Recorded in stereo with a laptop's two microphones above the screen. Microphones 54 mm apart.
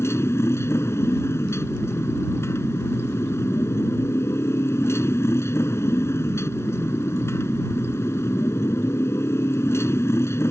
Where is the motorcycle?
55° left (ahead or behind).